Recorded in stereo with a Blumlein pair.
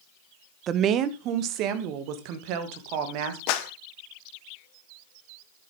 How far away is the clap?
About 1.2 m.